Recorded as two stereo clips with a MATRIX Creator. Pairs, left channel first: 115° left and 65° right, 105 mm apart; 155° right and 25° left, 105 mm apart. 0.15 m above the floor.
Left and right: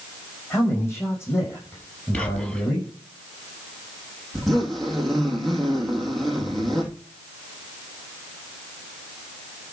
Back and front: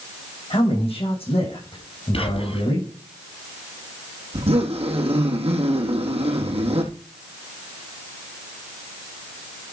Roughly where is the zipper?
Ahead left.